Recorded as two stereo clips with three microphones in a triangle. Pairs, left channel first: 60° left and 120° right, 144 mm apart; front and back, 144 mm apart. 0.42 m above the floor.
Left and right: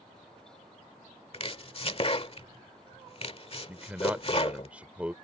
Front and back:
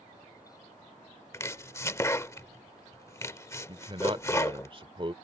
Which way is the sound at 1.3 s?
60° left.